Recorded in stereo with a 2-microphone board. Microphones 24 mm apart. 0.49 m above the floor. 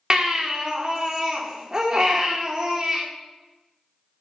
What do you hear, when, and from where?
0.1 s a baby crying: 25° right (ahead or behind), 0.7 m